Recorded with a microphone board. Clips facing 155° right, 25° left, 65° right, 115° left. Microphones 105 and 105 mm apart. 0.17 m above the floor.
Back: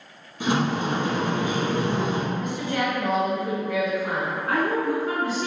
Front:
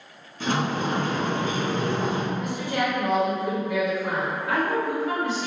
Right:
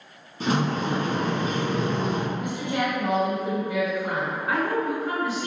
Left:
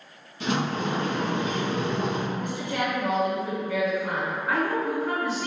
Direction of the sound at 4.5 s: 160° right.